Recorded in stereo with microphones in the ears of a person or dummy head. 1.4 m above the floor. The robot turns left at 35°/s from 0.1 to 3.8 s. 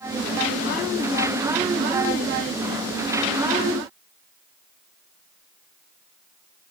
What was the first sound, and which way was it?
Only background noise.